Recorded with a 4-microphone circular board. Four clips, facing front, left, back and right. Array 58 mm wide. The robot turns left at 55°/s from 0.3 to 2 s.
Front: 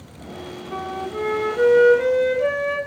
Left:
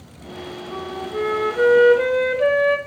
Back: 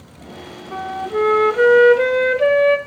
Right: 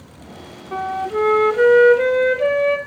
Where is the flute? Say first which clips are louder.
Right 7 dB, back 6 dB; 110° right, 0.8 m; by 2.8 s straight behind, 0.8 m.